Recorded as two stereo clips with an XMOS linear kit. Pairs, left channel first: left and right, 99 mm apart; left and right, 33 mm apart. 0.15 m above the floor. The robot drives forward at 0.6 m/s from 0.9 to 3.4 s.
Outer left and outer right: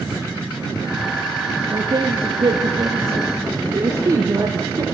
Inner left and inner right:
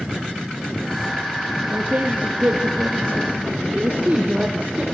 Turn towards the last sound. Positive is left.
turn(degrees=-40)  # may be behind; listen again after turning